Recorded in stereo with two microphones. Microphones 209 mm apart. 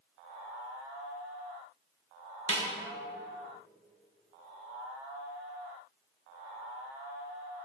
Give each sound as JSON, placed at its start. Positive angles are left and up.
{"t": 2.5, "sound": "a snare drum", "side_deg": -70, "distance_m": 1.4}